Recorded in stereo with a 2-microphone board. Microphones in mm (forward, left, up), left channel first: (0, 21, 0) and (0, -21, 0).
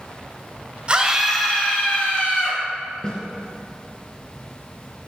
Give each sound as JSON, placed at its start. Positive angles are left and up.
{"t": 0.9, "sound": "a scream", "side_deg": -30, "distance_m": 1.2}
{"t": 3.0, "sound": "a snare drum", "side_deg": 25, "distance_m": 3.0}